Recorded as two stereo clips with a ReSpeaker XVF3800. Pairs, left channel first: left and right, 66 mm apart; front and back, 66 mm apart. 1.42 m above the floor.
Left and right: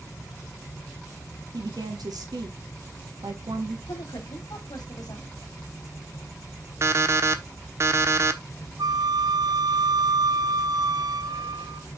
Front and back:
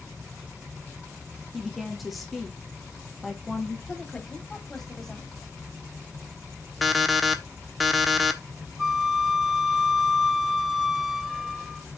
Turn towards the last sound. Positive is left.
turn(degrees=-90)